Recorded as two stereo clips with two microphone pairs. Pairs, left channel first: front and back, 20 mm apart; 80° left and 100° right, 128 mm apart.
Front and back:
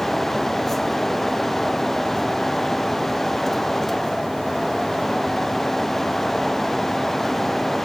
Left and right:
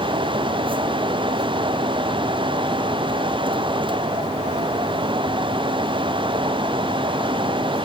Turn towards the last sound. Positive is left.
No sound to turn to.